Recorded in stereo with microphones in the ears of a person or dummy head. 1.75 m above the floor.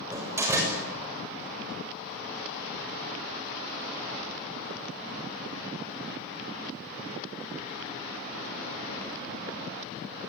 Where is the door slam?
15° right (ahead or behind), 6.5 m.